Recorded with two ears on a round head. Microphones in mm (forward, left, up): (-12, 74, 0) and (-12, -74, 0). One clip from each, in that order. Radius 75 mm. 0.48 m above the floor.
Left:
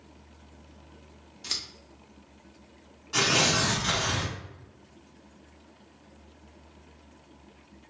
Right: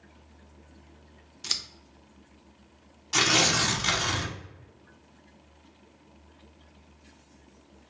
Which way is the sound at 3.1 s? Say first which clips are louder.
Right 1 dB; 55° right (ahead or behind).